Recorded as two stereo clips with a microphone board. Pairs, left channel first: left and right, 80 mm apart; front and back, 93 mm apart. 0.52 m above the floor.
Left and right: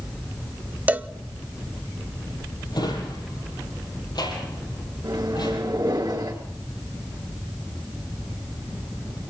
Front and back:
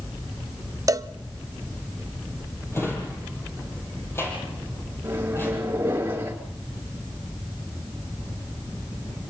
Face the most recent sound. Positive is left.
turn(degrees=-115)